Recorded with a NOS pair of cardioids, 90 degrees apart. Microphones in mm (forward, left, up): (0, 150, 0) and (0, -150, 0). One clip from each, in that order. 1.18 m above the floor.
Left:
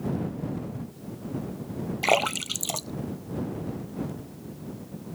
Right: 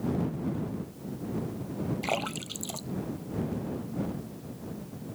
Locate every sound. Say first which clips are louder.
2.0 s a splash: left 10 dB; 55° left